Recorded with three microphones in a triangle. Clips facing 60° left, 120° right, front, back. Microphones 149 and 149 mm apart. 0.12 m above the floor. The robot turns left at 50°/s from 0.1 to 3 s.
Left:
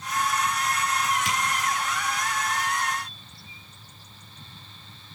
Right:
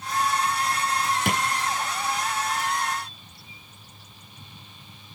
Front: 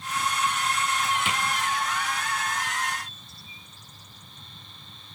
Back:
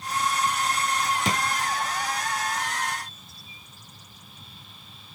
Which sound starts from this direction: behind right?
A drawer, at 1.2 s.